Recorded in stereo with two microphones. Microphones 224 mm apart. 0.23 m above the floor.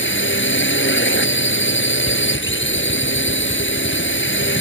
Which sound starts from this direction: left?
A drone, at 0.0 s.